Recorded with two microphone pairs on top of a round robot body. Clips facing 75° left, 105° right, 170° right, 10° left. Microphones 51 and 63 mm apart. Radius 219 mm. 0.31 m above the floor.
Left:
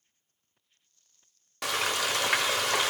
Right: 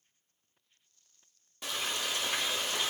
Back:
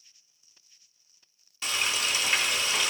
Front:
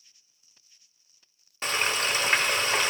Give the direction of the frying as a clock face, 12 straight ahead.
10 o'clock.